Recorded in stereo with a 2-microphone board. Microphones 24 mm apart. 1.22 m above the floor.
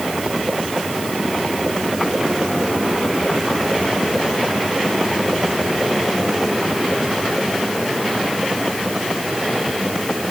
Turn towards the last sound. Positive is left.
No sound to turn to.